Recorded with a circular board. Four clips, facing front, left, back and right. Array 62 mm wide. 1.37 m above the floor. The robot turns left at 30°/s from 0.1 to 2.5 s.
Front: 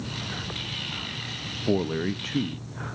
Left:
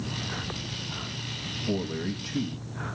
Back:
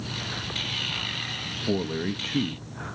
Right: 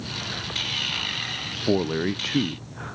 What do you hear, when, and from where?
1.7 s a man speaking: 70° right, 0.6 m; by 2.6 s 95° right, 0.6 m